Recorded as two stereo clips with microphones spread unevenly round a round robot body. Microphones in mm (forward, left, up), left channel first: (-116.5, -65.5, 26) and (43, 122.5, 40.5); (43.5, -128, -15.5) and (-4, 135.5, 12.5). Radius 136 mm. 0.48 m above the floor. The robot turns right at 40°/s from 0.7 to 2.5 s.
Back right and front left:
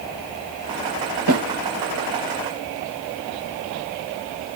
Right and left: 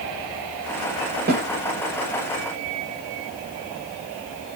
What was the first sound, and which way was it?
A snare drum, 45° left.